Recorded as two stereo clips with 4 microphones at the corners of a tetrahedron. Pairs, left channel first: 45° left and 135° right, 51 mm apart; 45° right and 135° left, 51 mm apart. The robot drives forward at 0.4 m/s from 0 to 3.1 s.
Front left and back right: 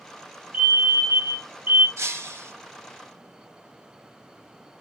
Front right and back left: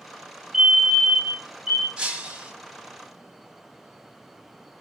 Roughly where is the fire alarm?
Behind.